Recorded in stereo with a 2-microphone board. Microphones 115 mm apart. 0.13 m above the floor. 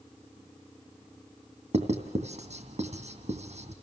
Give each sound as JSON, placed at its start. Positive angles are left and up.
{"t": 1.7, "sound": "writing", "side_deg": -75, "distance_m": 2.5}